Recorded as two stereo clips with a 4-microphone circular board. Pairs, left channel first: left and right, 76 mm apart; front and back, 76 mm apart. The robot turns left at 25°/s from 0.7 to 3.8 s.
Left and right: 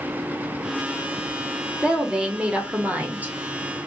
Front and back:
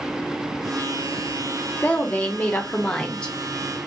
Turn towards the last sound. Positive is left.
turn(degrees=-75)